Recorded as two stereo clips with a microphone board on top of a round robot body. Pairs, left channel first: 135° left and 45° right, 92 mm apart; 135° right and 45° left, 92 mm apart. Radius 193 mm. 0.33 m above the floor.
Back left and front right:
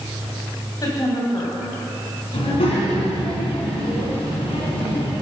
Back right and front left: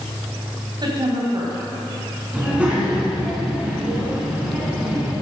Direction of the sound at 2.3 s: 120° left.